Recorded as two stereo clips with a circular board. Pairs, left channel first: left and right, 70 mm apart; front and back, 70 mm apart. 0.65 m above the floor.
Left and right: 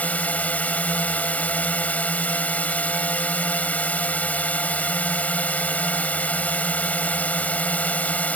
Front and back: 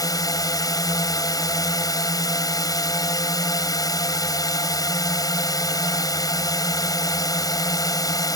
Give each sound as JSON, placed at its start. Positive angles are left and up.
{"t": 0.0, "sound": "a drone", "azimuth_deg": 25}